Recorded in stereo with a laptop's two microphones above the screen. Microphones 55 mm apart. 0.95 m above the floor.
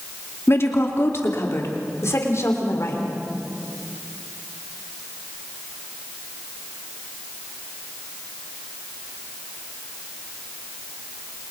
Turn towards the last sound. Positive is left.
turn(degrees=60)  # may be behind; listen again after turning